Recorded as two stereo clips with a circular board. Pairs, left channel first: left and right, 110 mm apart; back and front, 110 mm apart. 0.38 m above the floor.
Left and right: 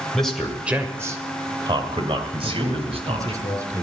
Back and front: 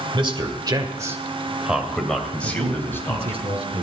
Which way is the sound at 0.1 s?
5° left.